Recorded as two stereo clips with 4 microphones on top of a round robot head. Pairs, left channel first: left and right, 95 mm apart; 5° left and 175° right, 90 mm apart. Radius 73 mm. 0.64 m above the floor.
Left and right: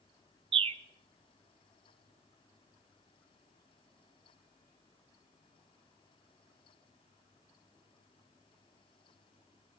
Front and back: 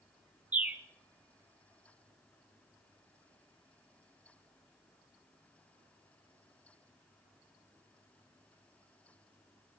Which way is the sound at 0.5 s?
100° right.